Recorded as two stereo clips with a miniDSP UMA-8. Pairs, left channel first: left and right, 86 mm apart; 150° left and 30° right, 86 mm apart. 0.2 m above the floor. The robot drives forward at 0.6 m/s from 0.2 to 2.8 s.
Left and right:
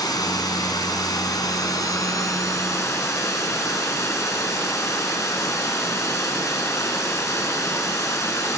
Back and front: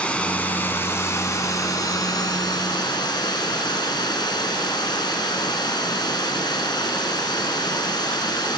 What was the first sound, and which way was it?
Running water, 80° left.